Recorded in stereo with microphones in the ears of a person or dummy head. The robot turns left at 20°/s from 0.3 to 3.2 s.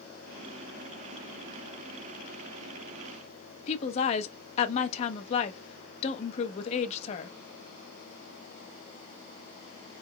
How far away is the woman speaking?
About 0.9 m.